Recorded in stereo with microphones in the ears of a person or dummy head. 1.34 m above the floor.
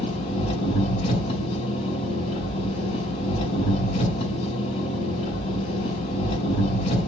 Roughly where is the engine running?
Left.